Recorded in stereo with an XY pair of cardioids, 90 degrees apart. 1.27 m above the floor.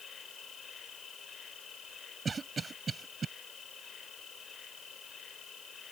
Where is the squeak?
No squeak in this recording.